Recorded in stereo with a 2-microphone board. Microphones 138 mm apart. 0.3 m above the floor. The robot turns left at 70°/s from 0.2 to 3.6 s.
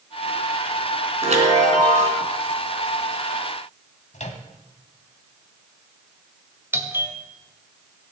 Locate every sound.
1.2 s a chime: 60° right, 3.5 m; by 2.2 s 130° right, 3.5 m
4.1 s a microwave: 55° left (ahead or behind), 1.5 m
6.7 s a doorbell: 15° right (ahead or behind), 1.6 m